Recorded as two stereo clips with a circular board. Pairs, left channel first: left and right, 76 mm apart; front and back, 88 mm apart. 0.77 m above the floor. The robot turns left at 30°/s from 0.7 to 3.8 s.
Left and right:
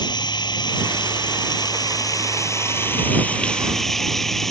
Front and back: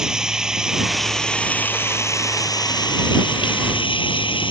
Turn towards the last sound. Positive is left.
turn(degrees=5)